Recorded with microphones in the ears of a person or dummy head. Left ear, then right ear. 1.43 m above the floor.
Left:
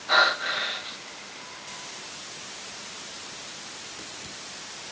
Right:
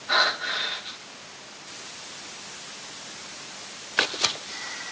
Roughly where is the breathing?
Centre.